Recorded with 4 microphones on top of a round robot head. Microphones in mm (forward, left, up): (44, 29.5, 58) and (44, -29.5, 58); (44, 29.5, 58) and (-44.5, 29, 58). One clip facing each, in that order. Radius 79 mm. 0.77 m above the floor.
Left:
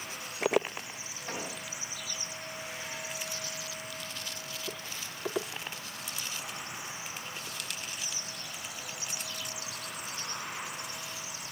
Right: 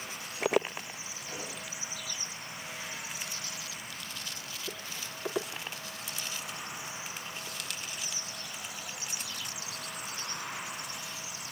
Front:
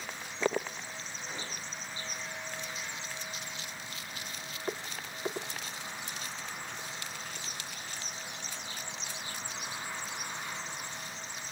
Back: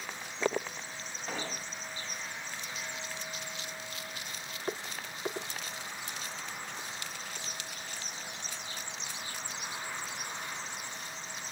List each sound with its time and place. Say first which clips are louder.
1.3 s an explosion: left 4 dB, back 6 dB; 155° left, 3.5 m